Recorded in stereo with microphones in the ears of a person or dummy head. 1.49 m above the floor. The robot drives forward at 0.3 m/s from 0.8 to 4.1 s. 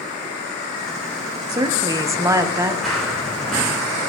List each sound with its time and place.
1.5 s a woman speaking: 15° right (ahead or behind), 0.9 m; by 2.7 s 10° right (ahead or behind), 1.2 m
2.8 s running footsteps: centre (ahead or behind), 1.6 m